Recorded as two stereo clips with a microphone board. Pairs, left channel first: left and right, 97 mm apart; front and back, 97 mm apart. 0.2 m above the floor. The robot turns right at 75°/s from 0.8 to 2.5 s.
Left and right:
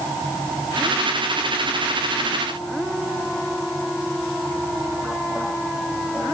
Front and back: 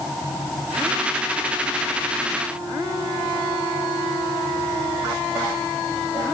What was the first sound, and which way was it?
Only background noise.